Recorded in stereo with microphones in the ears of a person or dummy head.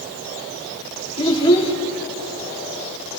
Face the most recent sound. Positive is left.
turn(degrees=30)  # may be behind; listen again after turning